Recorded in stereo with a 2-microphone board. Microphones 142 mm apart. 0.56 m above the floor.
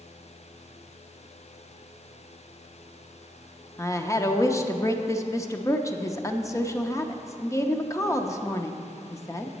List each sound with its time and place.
3.8 s a woman speaking: 20° left (ahead or behind), 0.6 m